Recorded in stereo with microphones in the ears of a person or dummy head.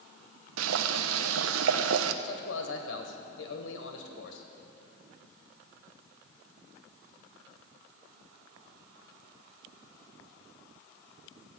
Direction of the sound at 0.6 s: 85° right.